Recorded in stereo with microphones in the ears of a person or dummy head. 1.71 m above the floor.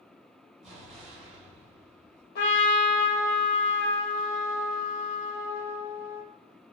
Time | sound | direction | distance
0.6 | an explosion | centre (ahead or behind) | 1.1 m
2.4 | a trumpet | 55° left (ahead or behind) | 0.9 m